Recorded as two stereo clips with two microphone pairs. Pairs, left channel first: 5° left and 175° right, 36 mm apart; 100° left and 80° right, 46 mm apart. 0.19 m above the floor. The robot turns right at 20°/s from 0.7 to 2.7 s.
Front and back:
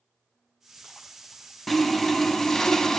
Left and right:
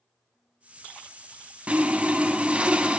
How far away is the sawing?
About 0.6 m.